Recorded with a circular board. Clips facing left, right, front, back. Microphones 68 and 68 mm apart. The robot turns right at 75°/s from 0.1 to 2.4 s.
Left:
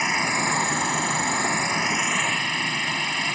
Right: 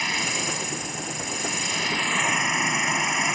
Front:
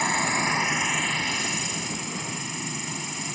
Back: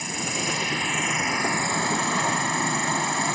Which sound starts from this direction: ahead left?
An insect, at 0.0 s.